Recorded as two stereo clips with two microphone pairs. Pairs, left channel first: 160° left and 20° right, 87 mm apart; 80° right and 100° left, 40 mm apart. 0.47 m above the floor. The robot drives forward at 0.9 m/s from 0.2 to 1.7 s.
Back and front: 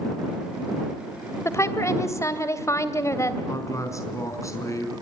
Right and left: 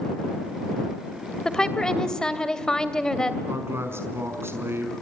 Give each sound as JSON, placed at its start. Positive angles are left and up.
{"t": 1.4, "sound": "a woman speaking", "azimuth_deg": -150, "distance_m": 2.5}
{"t": 3.5, "sound": "a man speaking", "azimuth_deg": 105, "distance_m": 5.0}